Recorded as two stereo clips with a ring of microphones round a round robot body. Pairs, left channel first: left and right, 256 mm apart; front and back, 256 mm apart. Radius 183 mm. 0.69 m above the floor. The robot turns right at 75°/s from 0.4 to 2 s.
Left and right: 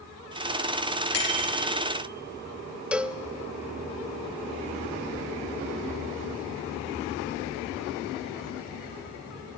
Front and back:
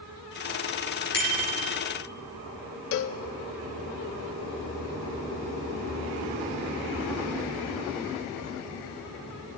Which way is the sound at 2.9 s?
5° right.